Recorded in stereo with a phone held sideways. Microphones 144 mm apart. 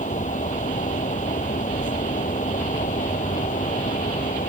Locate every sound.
0.0 s a fan: 55° left (ahead or behind)